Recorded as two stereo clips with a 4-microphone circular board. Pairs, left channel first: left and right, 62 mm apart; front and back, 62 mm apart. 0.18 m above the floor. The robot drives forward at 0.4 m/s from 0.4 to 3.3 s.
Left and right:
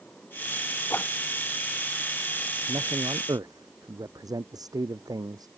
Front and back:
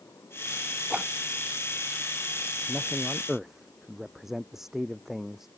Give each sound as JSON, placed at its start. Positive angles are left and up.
{"t": 0.9, "sound": "a whoosh", "azimuth_deg": 120}
{"t": 2.7, "sound": "a man speaking", "azimuth_deg": -95}